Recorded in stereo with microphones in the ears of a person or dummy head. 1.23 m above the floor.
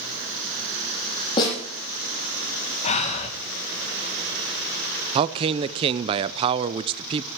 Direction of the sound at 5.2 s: 30° right (ahead or behind).